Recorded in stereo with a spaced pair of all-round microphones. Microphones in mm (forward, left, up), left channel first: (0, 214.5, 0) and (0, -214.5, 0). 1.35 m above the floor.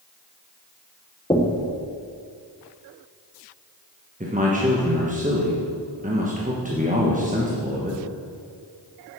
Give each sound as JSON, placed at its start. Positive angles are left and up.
{"t": 1.3, "sound": "knocking", "side_deg": 10, "distance_m": 1.0}
{"t": 4.2, "sound": "a man speaking", "side_deg": -20, "distance_m": 1.1}